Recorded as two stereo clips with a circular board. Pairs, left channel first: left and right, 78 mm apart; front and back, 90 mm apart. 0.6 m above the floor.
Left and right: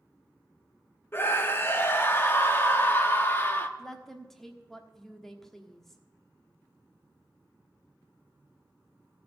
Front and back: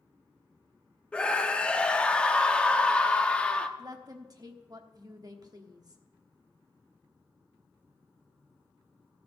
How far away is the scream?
About 0.8 m.